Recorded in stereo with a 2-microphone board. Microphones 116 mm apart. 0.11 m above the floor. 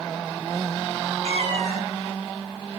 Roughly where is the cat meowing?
Right.